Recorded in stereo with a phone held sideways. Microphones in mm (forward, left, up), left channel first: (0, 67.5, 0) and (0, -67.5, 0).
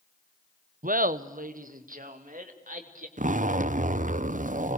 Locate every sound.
0.8 s laughter: 80° right, 0.8 m; by 3.1 s 75° right (ahead or behind), 3.5 m
3.2 s a zipper: 70° right (ahead or behind), 0.5 m